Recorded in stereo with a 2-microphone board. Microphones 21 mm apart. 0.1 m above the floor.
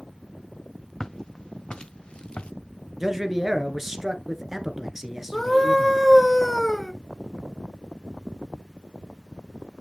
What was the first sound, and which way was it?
Footsteps, 30° left (ahead or behind).